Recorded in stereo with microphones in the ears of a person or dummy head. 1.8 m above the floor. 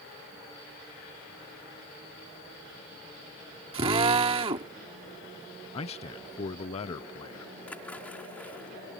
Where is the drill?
30° right (ahead or behind).